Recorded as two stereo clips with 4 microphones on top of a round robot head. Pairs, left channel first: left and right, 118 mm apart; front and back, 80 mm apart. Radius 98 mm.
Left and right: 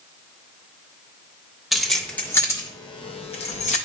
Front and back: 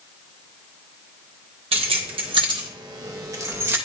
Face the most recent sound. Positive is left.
turn(degrees=120)